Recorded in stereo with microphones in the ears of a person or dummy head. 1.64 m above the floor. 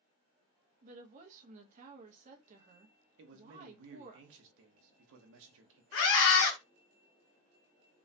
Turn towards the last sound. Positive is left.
turn(degrees=60)  # may be behind; listen again after turning